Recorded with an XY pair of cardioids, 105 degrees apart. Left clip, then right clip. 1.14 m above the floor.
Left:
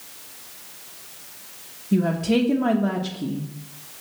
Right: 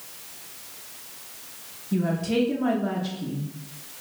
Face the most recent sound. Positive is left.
turn(degrees=40)